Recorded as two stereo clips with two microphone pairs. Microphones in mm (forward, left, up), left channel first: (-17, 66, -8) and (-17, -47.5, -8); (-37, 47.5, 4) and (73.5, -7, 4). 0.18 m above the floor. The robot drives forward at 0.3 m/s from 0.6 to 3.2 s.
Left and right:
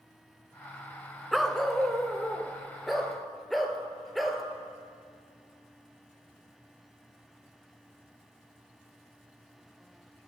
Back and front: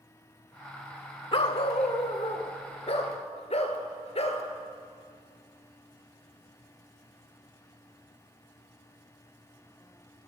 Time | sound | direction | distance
1.3 | a dog barking | straight behind | 0.5 m